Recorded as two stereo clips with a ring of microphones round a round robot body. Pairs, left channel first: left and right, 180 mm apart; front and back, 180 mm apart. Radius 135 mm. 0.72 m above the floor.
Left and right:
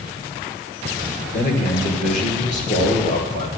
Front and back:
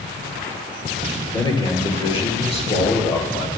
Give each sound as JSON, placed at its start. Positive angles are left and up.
{"t": 1.3, "sound": "a man speaking", "azimuth_deg": 65, "distance_m": 2.5}